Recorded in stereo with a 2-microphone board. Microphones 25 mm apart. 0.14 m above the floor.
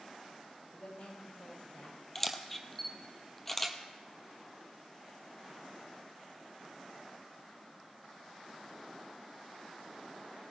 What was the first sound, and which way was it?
A woman speaking, 75° left (ahead or behind).